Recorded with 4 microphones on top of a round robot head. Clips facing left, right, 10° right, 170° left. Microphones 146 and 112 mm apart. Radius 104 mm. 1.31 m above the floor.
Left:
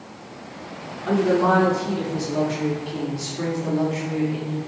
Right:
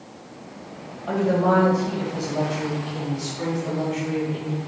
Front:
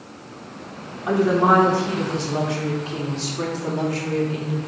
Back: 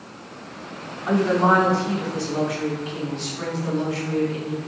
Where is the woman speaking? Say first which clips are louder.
Left 2 dB, front 1 dB; 70° left, 3.5 m; by 4.7 s 20° left, 2.5 m.